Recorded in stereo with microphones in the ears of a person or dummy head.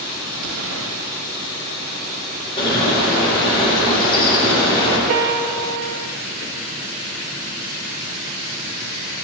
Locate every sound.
0.3 s an explosion: 60° right (ahead or behind), 0.9 m
2.6 s a bird: 25° left (ahead or behind), 1.8 m
5.1 s a piano: 70° right (ahead or behind), 0.6 m